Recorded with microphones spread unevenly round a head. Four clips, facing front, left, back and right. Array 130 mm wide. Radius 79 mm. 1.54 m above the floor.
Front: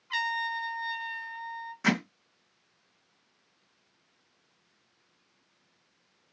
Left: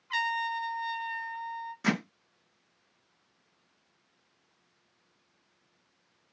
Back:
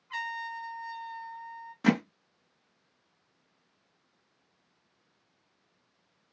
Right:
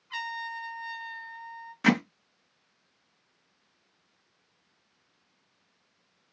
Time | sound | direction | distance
0.1 | a trumpet | 30° left | 0.9 m
1.8 | hammering | 150° right | 0.7 m